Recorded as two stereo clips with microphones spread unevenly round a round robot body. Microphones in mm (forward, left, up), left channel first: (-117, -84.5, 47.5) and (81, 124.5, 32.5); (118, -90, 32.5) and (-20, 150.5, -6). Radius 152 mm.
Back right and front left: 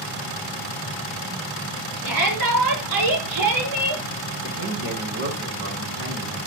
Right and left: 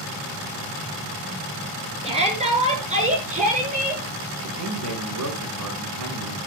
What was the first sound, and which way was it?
A shout, 50° left.